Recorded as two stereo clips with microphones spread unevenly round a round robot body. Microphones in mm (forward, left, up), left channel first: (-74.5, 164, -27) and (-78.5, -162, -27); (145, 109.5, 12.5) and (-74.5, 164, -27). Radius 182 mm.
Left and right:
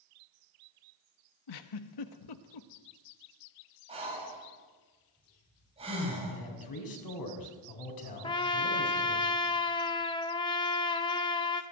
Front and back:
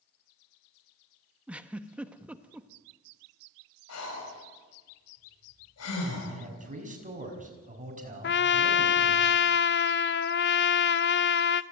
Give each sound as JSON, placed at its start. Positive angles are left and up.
{"t": 1.5, "sound": "a giggle", "azimuth_deg": 85, "distance_m": 1.2}
{"t": 3.9, "sound": "breathing", "azimuth_deg": -15, "distance_m": 5.5}
{"t": 6.3, "sound": "a man speaking", "azimuth_deg": 110, "distance_m": 6.5}
{"t": 8.2, "sound": "a trumpet", "azimuth_deg": 15, "distance_m": 0.6}